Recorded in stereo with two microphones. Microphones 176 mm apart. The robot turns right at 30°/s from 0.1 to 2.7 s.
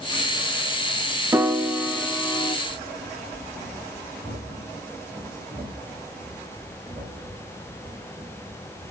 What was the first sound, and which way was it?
A piano, 15° right.